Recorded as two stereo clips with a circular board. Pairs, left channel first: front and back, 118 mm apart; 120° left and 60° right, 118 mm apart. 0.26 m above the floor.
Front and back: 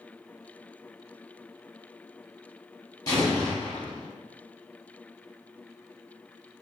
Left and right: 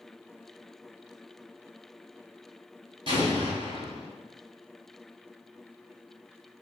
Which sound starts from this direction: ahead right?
An explosion, at 3.1 s.